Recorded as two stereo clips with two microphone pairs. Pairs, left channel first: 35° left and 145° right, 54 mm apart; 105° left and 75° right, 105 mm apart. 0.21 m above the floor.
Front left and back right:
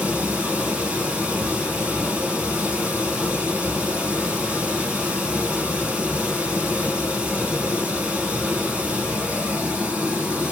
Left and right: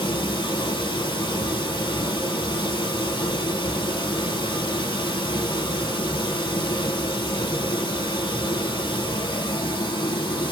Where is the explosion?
No explosion in this recording.